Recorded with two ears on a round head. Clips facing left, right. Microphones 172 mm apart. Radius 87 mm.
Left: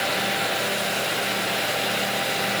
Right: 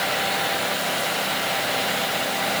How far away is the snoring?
I don't hear snoring.